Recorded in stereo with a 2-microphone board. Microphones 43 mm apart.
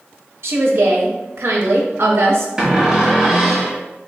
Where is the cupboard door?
15° right (ahead or behind), 1.2 m.